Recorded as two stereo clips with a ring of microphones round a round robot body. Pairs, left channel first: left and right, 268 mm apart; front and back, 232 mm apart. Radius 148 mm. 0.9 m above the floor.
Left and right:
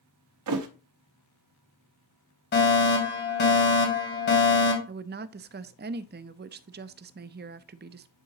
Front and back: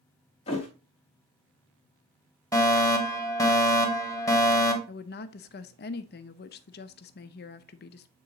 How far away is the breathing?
No breathing in this recording.